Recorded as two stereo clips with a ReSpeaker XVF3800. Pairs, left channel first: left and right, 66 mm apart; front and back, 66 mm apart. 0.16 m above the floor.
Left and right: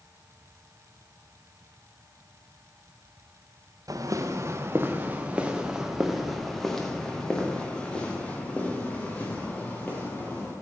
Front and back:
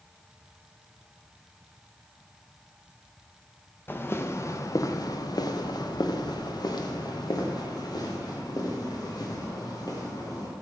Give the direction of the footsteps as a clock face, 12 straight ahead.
2 o'clock.